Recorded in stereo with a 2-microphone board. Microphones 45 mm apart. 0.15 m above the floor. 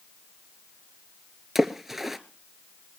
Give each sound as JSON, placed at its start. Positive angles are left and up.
{"t": 1.6, "sound": "a splash", "side_deg": -5, "distance_m": 0.8}